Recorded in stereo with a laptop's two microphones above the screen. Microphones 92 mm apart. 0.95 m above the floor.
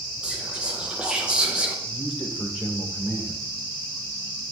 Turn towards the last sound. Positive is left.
turn(degrees=5)  # may be behind; listen again after turning